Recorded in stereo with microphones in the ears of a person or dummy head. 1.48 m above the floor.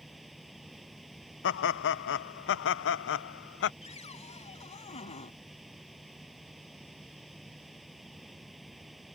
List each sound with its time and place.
0.0 s running water: centre (ahead or behind)
1.4 s laughter: 60° left (ahead or behind)
3.8 s a cupboard door: 30° left (ahead or behind)